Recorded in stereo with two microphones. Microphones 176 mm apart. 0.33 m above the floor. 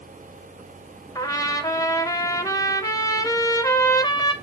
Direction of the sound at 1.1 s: 20° left (ahead or behind).